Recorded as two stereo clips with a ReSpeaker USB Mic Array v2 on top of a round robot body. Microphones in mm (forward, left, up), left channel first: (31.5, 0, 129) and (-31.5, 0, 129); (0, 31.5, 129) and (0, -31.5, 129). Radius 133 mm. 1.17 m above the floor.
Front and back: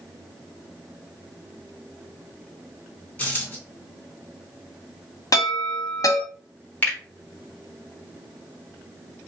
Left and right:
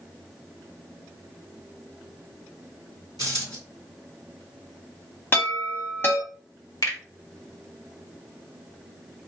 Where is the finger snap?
65° left, 1.9 m.